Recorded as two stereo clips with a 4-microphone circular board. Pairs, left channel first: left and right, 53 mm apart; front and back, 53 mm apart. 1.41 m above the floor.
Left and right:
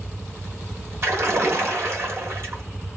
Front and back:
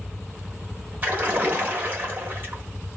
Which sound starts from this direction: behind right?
A splash, at 1.0 s.